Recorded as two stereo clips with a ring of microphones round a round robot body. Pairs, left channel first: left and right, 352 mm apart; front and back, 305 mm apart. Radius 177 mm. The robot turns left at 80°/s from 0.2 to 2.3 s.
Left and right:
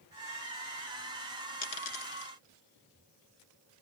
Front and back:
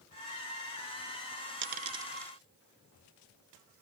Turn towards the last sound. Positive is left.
turn(degrees=80)